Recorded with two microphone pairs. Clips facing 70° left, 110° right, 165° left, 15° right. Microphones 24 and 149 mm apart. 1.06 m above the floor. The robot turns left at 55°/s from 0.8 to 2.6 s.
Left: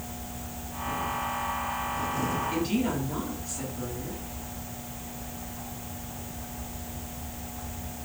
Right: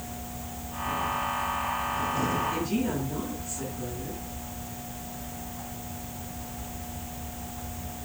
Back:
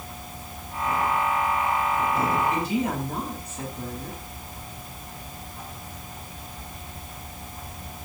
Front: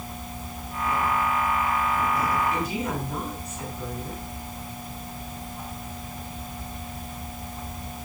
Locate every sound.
2.5 s a woman speaking: 110° left, 10 m; by 4.2 s 105° left, 10 m